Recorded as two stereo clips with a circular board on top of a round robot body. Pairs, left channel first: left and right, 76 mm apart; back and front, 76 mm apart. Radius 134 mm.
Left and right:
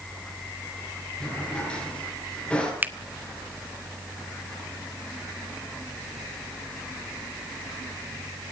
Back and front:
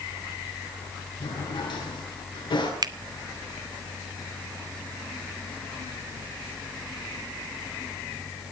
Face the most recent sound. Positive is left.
turn(degrees=-25)